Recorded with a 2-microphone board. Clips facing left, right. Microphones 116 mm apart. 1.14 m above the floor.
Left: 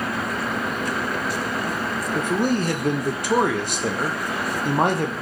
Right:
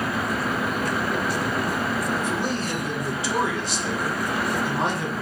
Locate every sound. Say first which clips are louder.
2.1 s a man speaking: left 4 dB; 55° left (ahead or behind), 0.6 m